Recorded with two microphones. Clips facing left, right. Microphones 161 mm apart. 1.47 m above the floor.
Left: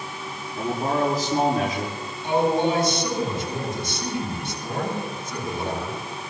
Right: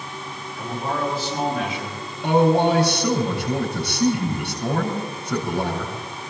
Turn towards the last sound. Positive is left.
turn(degrees=-85)